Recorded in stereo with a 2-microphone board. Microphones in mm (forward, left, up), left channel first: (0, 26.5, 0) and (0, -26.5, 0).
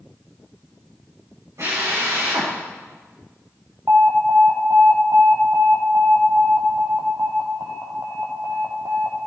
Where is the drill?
60° right (ahead or behind), 7 m.